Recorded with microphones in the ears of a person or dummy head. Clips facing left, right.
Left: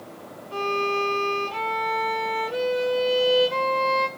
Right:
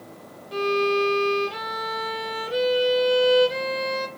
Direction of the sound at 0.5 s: 25° right (ahead or behind).